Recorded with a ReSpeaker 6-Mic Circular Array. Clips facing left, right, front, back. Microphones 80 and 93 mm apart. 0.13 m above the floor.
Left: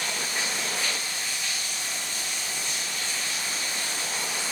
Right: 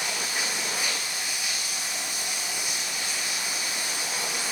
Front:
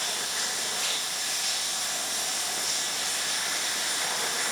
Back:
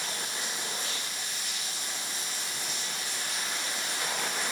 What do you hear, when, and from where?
0.0 s running water: 10° right, 7 m